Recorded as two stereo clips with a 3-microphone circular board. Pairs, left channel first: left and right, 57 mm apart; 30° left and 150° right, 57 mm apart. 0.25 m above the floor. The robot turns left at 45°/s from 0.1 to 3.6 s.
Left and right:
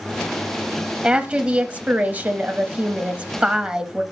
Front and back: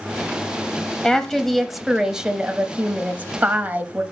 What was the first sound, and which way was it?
A woman speaking, 35° right.